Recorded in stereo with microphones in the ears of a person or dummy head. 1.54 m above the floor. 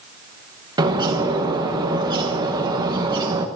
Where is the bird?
20° right (ahead or behind), 1.4 m.